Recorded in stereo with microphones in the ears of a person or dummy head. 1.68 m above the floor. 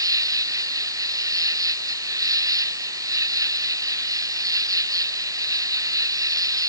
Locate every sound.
0.0 s an insect: 10° right (ahead or behind)